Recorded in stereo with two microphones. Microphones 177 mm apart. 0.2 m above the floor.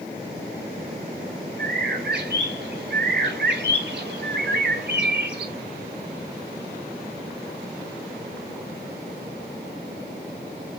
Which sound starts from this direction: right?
A bird, at 1.6 s.